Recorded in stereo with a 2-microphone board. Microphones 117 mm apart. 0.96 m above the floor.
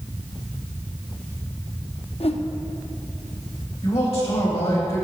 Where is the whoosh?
55° left (ahead or behind), 0.6 m.